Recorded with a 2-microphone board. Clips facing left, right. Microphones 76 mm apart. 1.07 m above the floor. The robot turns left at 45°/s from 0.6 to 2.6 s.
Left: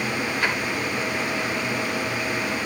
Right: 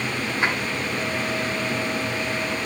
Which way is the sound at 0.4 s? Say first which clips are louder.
Right 2 dB; 25° right (ahead or behind).